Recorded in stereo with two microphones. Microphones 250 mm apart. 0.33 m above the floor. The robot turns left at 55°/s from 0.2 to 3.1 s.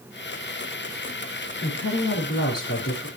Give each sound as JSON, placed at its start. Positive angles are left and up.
{"t": 1.6, "sound": "a woman speaking", "azimuth_deg": 130, "distance_m": 5.0}